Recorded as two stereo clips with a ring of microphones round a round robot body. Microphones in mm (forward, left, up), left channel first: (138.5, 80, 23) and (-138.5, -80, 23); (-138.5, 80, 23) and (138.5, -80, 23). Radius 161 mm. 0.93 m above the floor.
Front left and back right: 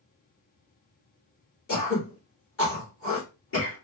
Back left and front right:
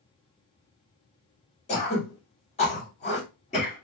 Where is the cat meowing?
I don't hear a cat meowing.